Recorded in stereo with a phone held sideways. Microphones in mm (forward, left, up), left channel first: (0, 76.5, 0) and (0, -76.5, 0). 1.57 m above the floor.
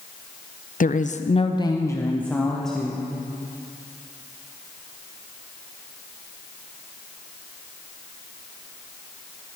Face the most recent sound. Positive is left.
turn(degrees=0)  # may be behind; listen again after turning